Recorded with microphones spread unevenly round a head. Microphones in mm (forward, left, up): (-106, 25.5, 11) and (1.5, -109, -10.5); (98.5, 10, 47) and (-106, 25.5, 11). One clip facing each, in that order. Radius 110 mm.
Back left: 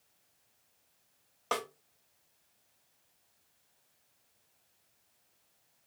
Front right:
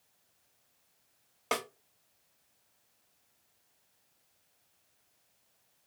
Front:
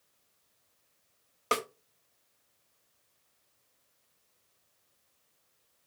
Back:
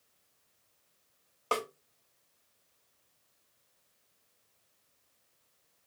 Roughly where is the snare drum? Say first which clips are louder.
Front right 1 dB, front 1 dB; ahead right.